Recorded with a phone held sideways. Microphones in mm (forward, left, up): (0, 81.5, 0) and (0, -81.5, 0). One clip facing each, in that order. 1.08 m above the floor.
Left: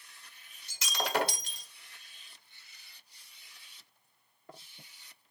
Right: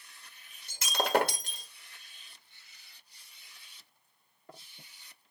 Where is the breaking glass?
50° right (ahead or behind), 1.3 m.